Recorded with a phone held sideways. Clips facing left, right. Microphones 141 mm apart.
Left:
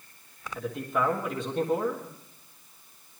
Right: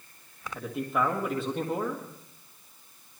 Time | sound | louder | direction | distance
0.6 | a man speaking | even | 5° right (ahead or behind) | 1.7 m